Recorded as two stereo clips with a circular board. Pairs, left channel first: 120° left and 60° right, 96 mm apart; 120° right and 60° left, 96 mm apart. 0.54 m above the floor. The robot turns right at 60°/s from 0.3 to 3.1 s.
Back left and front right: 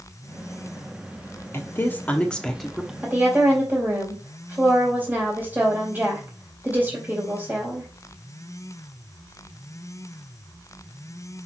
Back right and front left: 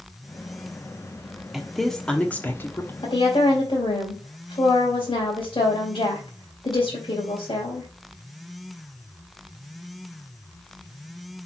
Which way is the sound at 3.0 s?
130° right.